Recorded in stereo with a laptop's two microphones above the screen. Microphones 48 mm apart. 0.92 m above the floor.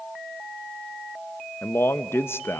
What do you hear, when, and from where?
1.6 s a man speaking: 55° left (ahead or behind), 0.7 m